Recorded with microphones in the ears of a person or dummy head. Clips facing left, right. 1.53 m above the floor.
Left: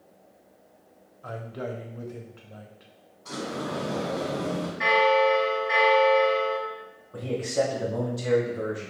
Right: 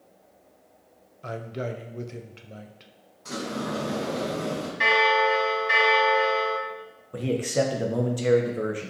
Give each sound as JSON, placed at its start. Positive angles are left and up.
{"t": 1.2, "sound": "a man speaking", "side_deg": -35, "distance_m": 0.5}
{"t": 3.2, "sound": "a sliding door", "side_deg": -45, "distance_m": 1.8}
{"t": 4.8, "sound": "a bell", "side_deg": -50, "distance_m": 1.7}
{"t": 7.1, "sound": "a man speaking", "side_deg": -45, "distance_m": 0.8}